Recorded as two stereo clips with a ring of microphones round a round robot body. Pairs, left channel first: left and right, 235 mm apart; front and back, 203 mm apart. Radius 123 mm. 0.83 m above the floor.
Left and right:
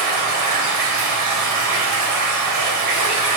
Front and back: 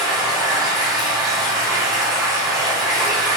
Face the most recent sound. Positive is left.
turn(degrees=-105)